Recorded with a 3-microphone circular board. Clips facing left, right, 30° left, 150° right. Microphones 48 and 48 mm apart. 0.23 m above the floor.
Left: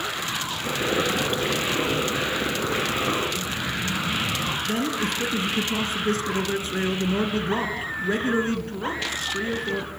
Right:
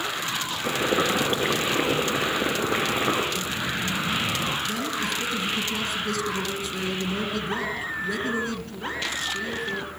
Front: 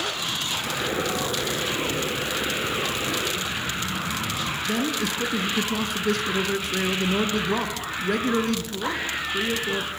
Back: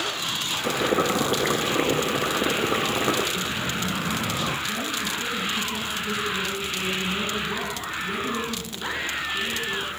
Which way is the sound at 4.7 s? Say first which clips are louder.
Left 2 dB, front 3 dB; 40° left.